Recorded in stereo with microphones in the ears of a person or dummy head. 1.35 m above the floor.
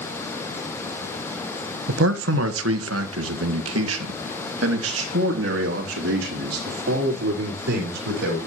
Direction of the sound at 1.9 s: 70° right (ahead or behind).